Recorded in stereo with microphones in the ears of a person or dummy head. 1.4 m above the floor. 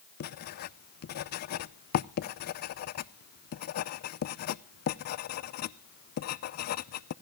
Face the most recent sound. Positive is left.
turn(degrees=55)  # may be behind; listen again after turning